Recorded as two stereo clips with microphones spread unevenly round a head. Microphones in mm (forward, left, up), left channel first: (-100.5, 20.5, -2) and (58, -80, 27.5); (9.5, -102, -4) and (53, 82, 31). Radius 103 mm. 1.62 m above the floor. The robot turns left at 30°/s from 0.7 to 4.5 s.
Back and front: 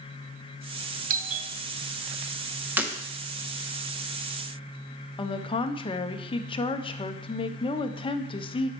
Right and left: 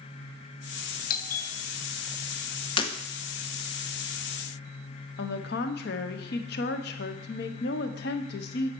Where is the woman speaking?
145° right, 0.6 m.